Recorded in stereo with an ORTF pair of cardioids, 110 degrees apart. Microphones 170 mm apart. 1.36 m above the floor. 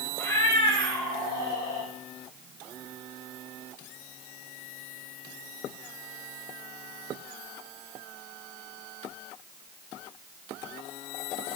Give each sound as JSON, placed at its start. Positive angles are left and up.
{"t": 0.2, "sound": "a cat meowing", "azimuth_deg": 15, "distance_m": 1.8}